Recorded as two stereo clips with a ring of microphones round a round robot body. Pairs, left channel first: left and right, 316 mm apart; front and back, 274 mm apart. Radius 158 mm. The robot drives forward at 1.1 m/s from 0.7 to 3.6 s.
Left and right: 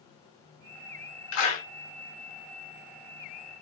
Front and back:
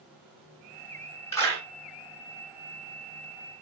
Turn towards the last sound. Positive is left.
turn(degrees=100)